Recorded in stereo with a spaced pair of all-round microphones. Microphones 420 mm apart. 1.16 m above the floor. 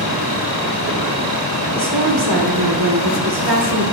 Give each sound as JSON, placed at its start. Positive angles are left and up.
{"t": 1.8, "sound": "a woman speaking", "side_deg": -65, "distance_m": 2.0}